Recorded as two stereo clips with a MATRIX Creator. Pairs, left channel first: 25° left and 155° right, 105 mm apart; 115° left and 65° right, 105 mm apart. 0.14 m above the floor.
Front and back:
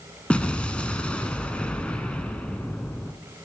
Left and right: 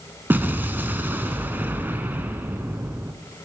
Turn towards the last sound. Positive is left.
turn(degrees=-35)